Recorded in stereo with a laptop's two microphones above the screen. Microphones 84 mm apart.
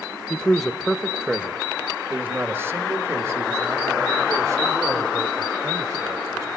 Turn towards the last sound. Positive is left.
turn(degrees=-40)  # may be behind; listen again after turning